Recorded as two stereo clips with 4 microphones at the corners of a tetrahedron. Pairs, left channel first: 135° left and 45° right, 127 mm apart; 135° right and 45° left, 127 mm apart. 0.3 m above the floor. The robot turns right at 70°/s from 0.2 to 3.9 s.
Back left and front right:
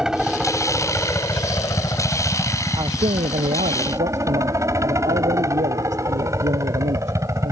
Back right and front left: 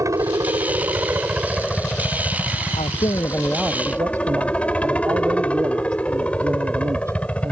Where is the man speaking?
100° right; by 7.5 s 20° right.